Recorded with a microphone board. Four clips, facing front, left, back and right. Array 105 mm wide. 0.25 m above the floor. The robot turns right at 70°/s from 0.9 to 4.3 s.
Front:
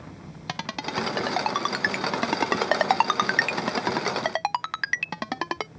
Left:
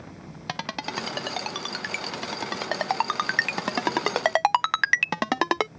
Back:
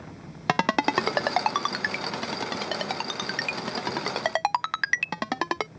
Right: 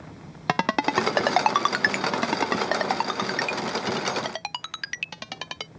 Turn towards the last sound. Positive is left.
turn(degrees=100)